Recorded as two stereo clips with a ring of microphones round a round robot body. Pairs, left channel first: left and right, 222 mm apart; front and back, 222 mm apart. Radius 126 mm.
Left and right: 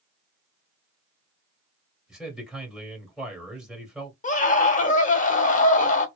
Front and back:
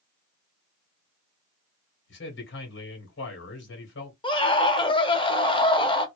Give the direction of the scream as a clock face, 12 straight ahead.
10 o'clock.